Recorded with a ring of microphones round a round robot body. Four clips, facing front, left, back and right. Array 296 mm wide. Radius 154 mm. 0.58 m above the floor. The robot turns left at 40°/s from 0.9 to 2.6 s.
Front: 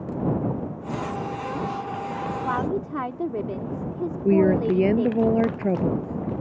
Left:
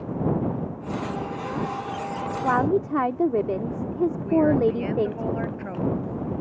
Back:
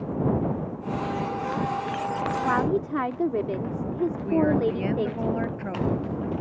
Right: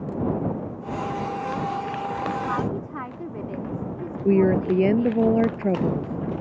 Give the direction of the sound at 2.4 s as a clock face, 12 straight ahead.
8 o'clock.